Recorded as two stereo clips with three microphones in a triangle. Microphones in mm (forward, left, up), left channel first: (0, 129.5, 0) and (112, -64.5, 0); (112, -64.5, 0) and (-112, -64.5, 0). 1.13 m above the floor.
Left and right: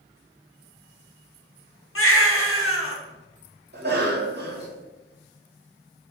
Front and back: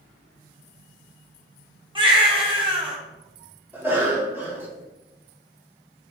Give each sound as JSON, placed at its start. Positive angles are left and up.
{"t": 1.9, "sound": "a baby crying", "azimuth_deg": 115, "distance_m": 0.6}
{"t": 3.7, "sound": "a cough", "azimuth_deg": -100, "distance_m": 0.7}